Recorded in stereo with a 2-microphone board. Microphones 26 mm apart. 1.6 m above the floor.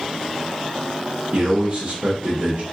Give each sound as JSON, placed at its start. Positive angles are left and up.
{"t": 1.3, "sound": "a man speaking", "side_deg": -55, "distance_m": 0.8}